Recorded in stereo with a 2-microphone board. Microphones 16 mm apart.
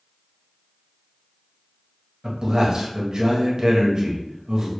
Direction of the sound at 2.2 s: 55° right (ahead or behind).